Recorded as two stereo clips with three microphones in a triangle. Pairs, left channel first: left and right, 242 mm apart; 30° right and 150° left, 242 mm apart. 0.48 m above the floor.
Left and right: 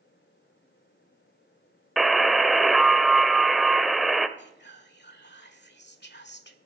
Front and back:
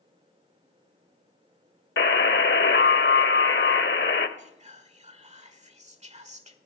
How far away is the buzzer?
About 0.7 m.